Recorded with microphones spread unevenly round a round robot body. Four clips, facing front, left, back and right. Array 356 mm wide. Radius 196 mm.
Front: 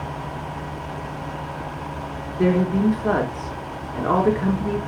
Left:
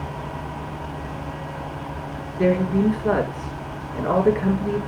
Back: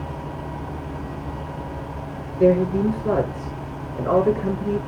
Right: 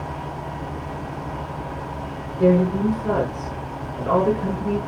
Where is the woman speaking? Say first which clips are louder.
Right 2 dB, back 2 dB; 30° left, 6 m.